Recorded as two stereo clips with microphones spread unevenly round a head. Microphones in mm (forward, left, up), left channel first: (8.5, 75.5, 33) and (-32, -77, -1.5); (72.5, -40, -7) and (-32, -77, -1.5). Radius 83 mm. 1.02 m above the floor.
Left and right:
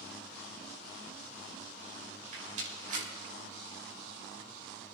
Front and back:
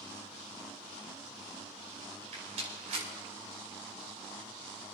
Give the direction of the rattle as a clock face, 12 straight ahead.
5 o'clock.